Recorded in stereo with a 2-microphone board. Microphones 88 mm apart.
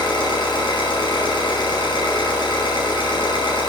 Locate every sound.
0.0 s an engine running: 65° left (ahead or behind), 4 m